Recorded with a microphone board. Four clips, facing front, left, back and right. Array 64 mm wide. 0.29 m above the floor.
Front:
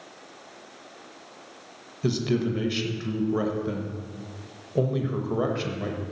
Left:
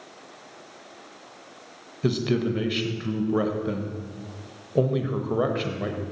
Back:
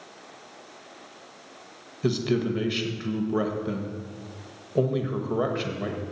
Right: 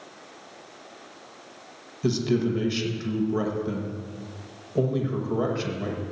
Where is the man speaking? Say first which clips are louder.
Even, even; 110° left, 1.0 m.